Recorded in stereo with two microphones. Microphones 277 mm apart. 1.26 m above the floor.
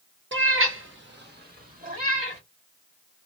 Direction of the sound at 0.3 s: 45° right (ahead or behind).